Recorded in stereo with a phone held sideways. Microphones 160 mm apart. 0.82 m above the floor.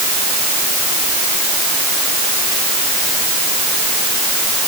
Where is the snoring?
I don't hear snoring.